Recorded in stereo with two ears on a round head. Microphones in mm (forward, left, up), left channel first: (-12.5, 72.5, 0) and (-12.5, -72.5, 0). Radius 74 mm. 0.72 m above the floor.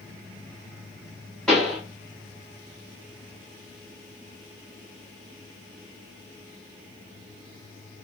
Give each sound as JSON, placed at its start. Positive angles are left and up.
{"t": 1.5, "sound": "a pop", "side_deg": 5, "distance_m": 1.2}